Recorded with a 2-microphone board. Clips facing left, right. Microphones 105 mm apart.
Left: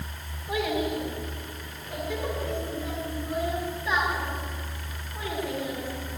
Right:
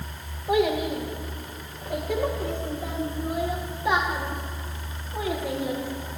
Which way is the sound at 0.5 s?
60° right (ahead or behind).